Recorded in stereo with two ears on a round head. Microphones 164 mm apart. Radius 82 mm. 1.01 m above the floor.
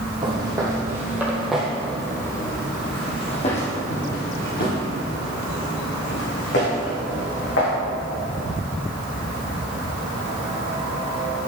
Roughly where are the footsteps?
Right.